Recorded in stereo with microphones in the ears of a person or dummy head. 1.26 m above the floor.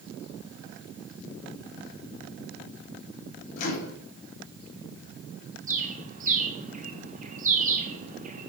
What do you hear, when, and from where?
3.6 s a microwave: 45° left (ahead or behind), 3 m
5.7 s a bird: 40° right (ahead or behind), 1.2 m